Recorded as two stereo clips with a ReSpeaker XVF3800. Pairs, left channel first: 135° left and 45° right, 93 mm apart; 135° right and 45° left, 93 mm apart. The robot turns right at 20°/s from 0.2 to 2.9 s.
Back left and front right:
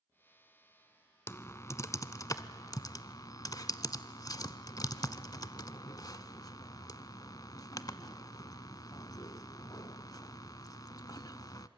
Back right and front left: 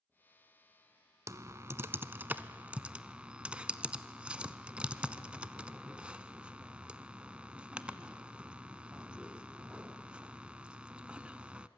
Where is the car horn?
I don't hear a car horn.